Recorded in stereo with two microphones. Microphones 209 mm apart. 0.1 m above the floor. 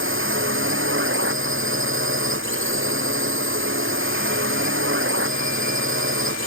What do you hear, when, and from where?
0.0 s a drone: 75° right (ahead or behind)